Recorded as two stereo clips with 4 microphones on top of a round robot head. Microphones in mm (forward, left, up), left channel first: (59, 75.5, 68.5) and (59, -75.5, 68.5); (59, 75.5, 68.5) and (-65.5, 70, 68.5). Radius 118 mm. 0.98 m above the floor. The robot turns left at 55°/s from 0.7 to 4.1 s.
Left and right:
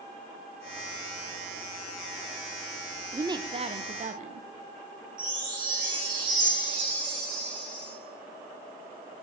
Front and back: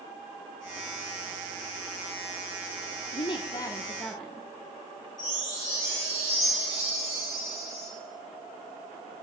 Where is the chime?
65° right, 7 m.